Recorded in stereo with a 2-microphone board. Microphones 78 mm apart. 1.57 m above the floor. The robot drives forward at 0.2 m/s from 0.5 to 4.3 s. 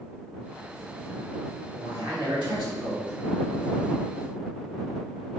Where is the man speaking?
85° right, 1.6 m; by 3.1 s 80° right, 1.6 m.